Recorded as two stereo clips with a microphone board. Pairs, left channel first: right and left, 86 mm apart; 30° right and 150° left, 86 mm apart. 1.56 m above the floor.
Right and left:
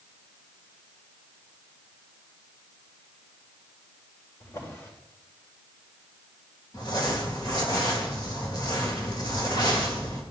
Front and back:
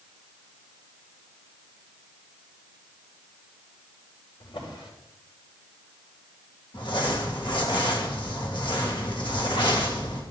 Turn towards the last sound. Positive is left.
turn(degrees=-55)